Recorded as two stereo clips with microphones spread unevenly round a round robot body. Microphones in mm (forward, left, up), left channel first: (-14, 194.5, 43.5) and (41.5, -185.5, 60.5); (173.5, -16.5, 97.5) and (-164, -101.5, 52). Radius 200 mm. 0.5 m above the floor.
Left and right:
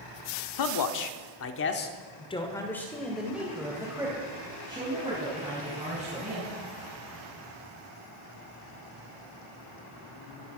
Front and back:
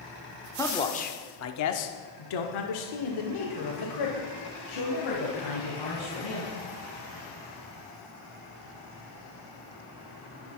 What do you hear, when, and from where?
0.6 s a man speaking: 100° left, 1.3 m; by 6.6 s 10° right, 4.5 m